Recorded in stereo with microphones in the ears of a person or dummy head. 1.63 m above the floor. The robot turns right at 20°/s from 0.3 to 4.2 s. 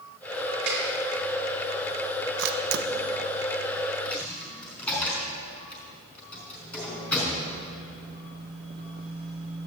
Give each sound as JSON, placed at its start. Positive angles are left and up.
{"t": 0.7, "sound": "a snare drum", "side_deg": -50, "distance_m": 4.0}
{"t": 2.4, "sound": "a camera shutter", "side_deg": -65, "distance_m": 1.1}
{"t": 4.0, "sound": "a dropped coin", "side_deg": 5, "distance_m": 4.0}